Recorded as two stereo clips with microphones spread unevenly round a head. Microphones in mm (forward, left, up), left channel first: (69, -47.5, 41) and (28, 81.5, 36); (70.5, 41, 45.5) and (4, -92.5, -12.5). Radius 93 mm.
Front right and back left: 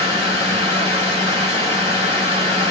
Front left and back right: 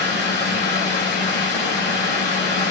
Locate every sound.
0.0 s a fan: 60° left, 5 m